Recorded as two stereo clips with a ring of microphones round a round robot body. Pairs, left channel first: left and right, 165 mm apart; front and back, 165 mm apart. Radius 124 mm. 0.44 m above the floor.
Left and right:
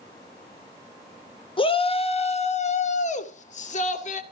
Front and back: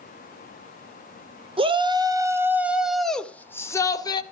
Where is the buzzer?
No buzzer in this recording.